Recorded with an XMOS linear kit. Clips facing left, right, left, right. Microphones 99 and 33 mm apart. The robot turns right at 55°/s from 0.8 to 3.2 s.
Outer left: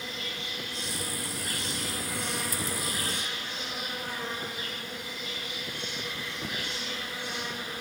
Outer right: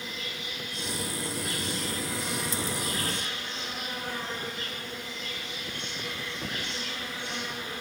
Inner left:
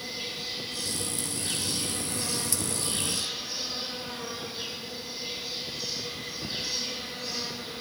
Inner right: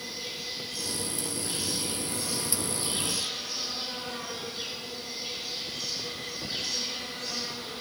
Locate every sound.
0.0 s an insect: 35° left, 5.5 m; by 7.8 s 170° left, 5.5 m